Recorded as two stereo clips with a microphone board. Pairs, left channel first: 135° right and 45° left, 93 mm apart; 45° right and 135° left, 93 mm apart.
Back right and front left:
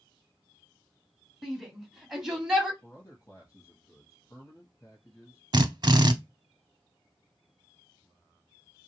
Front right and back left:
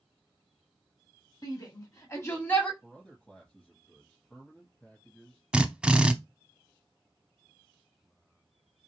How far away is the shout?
About 1.7 m.